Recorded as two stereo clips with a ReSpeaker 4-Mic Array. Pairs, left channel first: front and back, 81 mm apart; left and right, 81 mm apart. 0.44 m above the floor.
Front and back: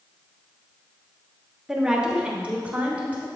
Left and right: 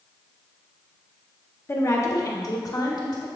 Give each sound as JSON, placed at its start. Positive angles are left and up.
{"t": 1.7, "sound": "a woman speaking", "azimuth_deg": 100, "distance_m": 0.9}